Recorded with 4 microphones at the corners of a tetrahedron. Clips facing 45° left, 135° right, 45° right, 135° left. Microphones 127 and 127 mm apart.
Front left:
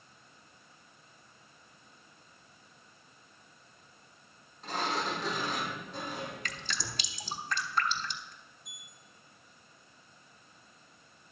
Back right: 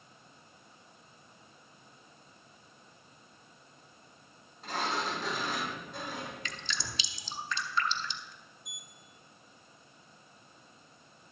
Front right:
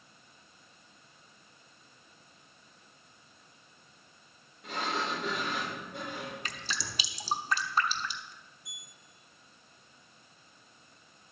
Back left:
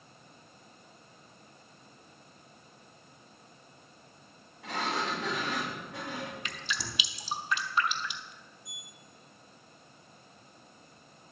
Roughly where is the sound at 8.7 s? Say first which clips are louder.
Back right 2 dB, back left 4 dB; ahead right.